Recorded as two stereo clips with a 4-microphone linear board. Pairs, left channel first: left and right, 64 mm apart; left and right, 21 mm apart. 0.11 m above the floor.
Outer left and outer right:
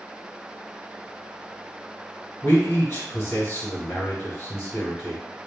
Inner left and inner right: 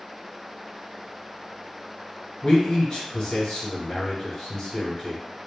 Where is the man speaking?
40° left (ahead or behind), 2.0 m.